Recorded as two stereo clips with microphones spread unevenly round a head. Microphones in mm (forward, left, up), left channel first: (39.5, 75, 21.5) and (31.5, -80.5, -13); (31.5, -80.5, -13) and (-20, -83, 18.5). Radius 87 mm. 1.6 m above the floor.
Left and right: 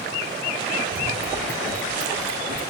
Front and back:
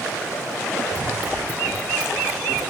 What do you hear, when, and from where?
0.9 s running footsteps: 125° right, 6.5 m; by 2.6 s 115° right, 5.5 m